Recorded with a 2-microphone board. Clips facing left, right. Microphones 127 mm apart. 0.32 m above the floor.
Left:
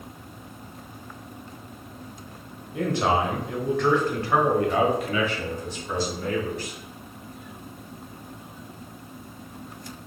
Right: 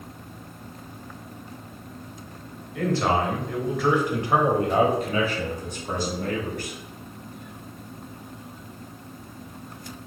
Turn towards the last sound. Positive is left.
turn(degrees=-60)  # may be behind; listen again after turning